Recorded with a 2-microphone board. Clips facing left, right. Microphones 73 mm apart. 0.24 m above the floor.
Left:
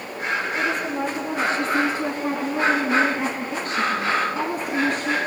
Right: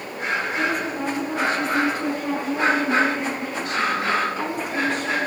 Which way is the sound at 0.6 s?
25° left (ahead or behind).